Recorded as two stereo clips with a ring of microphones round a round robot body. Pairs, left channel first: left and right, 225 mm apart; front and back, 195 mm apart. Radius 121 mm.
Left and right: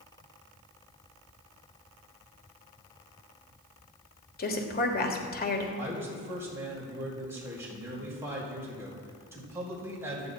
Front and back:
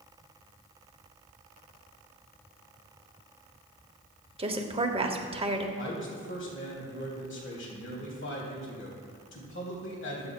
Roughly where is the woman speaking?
Behind left.